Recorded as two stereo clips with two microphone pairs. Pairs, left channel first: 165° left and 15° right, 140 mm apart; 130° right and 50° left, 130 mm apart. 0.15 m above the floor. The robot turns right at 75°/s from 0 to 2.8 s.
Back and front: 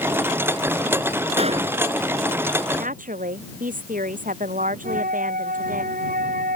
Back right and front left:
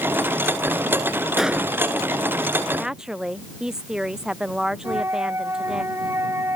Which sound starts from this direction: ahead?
A flute, at 4.8 s.